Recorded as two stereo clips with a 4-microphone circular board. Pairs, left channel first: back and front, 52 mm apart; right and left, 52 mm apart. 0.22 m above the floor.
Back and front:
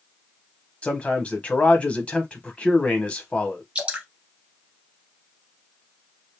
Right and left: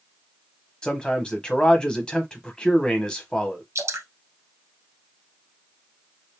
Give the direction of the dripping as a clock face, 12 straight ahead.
10 o'clock.